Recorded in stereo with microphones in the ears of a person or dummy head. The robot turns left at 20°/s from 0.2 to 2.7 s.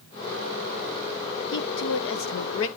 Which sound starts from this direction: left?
A woman speaking, at 1.5 s.